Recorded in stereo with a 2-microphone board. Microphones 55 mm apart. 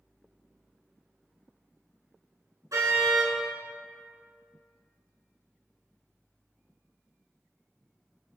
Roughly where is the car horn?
Right.